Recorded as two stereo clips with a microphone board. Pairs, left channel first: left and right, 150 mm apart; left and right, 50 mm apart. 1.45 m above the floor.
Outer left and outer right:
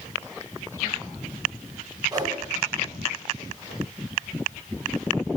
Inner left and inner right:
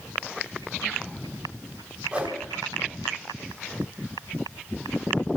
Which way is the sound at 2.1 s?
25° right (ahead or behind).